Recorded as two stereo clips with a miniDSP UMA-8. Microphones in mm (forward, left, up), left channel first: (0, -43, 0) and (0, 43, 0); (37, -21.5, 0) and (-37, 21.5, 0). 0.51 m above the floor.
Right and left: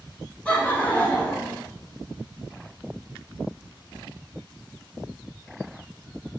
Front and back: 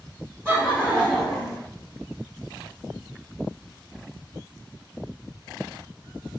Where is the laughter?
160° right, 1.6 m; by 1.6 s 125° right, 1.5 m.